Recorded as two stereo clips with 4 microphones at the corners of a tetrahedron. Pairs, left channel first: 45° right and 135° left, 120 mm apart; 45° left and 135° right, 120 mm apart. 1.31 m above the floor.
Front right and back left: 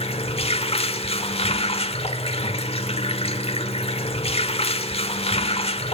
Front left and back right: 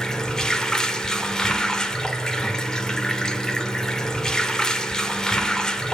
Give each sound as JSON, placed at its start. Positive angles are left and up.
{"t": 0.0, "sound": "running water", "azimuth_deg": -40, "distance_m": 1.4}